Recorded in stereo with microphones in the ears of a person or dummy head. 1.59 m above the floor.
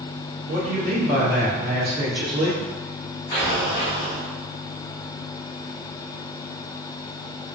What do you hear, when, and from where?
0.5 s a man speaking: 70° right (ahead or behind), 1.0 m
3.3 s an explosion: 15° left (ahead or behind), 0.9 m